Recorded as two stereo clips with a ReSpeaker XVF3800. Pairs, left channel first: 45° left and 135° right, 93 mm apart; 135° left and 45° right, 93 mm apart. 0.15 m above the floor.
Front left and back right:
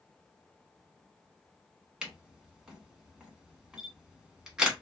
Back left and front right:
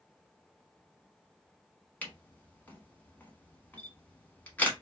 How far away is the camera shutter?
About 0.9 m.